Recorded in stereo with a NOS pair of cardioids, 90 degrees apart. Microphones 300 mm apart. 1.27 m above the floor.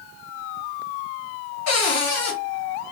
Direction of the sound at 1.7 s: 60° left.